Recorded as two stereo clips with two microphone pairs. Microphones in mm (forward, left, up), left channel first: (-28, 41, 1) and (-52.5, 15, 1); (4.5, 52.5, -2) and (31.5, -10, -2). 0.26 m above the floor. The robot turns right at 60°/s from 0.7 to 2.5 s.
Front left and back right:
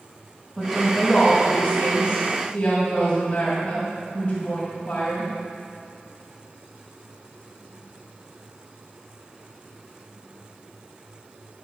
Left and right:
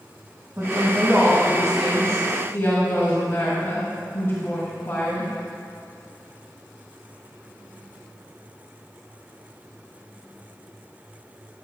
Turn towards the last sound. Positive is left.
turn(degrees=95)